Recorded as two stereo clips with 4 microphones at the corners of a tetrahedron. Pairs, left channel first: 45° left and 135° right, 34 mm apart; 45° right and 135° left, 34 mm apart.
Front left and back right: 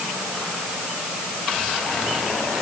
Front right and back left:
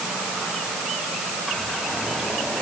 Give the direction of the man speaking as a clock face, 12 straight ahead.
I don't hear a man speaking.